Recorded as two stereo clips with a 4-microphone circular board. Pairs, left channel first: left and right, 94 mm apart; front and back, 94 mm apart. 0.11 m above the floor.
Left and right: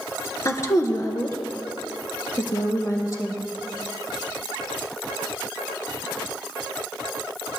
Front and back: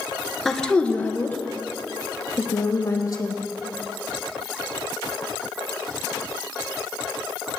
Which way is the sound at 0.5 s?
85° left.